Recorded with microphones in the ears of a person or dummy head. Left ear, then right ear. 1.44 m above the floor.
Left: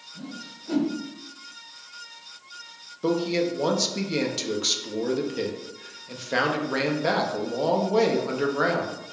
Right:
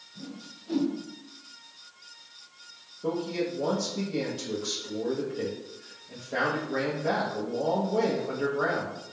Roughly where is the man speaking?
Left.